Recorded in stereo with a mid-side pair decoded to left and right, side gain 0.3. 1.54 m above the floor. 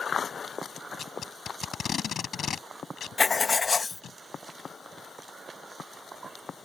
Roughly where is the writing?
Ahead left.